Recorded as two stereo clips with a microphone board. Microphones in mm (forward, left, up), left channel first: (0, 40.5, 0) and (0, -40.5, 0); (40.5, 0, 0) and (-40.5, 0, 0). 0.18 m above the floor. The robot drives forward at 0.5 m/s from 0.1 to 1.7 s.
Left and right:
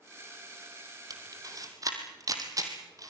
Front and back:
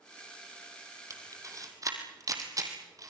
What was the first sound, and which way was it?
A camera shutter, 130° right.